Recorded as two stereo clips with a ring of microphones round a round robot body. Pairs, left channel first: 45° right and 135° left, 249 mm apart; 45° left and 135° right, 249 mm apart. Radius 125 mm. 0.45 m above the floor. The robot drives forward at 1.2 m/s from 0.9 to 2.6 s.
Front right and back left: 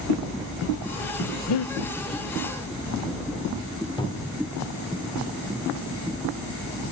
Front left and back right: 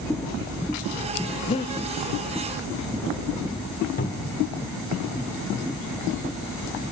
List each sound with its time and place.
1.5 s breathing: 20° right, 0.9 m; by 1.8 s 30° right, 0.6 m
4.0 s a cupboard door: 20° left, 1.8 m